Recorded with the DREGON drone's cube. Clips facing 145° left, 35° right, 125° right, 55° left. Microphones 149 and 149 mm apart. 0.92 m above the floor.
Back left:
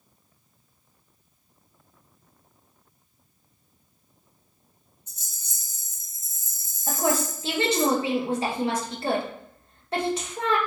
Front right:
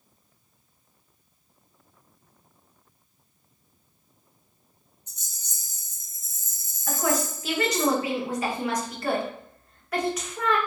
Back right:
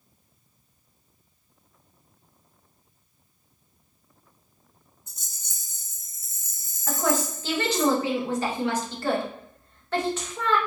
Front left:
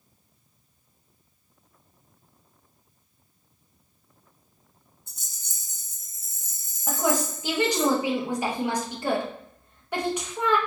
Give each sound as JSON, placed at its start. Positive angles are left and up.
{"t": 5.1, "sound": "a rattle", "azimuth_deg": -140, "distance_m": 1.2}
{"t": 6.9, "sound": "a woman speaking", "azimuth_deg": 120, "distance_m": 0.7}